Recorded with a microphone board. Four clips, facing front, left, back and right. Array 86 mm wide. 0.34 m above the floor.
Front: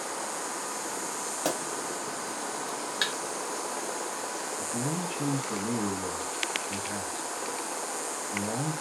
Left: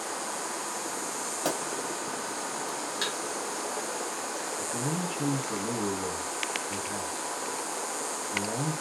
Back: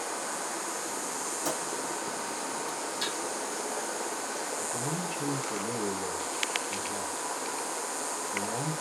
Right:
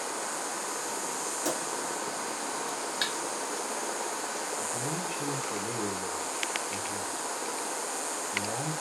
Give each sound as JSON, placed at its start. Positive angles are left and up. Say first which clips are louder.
{"t": 1.4, "sound": "a pop", "louder": "left 2 dB, front 4 dB", "azimuth_deg": 25, "distance_m": 3.0}
{"t": 3.0, "sound": "a thud", "louder": "left 1 dB, front 5 dB", "azimuth_deg": -10, "distance_m": 1.9}
{"t": 4.6, "sound": "a man speaking", "louder": "left 2 dB, front 1 dB", "azimuth_deg": 35, "distance_m": 3.0}